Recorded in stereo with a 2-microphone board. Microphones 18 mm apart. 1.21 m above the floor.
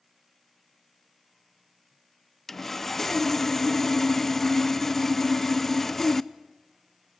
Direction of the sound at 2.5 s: 15° left (ahead or behind).